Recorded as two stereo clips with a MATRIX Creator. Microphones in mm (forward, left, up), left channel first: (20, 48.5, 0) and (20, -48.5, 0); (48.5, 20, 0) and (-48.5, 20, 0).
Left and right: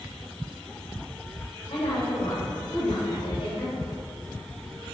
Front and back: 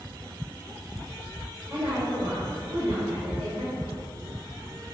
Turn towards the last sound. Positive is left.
turn(degrees=115)